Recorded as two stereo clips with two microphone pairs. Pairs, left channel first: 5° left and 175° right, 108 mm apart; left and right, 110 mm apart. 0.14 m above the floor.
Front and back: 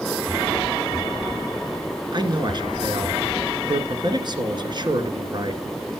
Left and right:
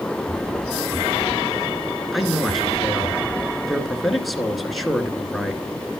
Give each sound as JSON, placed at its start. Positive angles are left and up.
{"t": 2.1, "sound": "a man speaking", "azimuth_deg": 180, "distance_m": 2.0}